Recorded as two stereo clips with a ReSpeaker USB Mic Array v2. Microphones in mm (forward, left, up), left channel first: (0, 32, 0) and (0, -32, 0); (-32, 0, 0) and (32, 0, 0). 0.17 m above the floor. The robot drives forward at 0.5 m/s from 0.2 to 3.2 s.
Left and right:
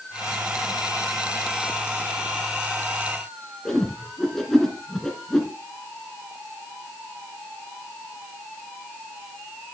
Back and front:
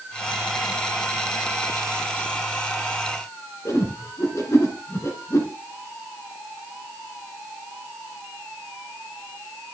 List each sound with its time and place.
3.6 s a whoosh: 170° left, 1.8 m